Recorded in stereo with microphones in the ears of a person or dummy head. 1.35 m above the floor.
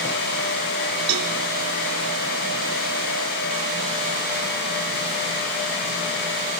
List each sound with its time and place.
1.1 s a cowbell: 85° right, 3 m